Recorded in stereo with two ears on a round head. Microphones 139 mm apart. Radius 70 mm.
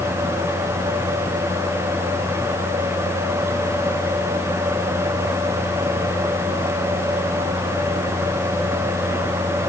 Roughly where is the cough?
I don't hear a cough.